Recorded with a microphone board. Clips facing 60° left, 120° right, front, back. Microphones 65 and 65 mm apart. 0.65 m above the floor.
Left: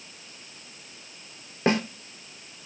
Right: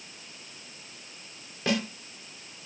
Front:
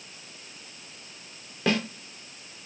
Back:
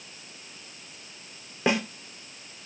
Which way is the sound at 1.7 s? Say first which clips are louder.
Left 5 dB, back 1 dB; 110° left.